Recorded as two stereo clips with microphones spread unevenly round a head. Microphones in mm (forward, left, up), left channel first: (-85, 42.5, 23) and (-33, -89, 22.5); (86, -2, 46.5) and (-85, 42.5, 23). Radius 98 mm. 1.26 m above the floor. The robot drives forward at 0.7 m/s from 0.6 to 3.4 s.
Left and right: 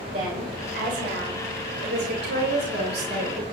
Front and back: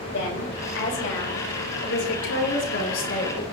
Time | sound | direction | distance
0.1 | a woman speaking | 35° right | 6.5 m